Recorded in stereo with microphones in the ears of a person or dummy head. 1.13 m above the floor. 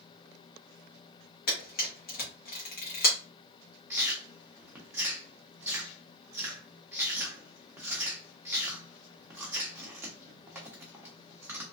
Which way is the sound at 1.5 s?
50° left (ahead or behind).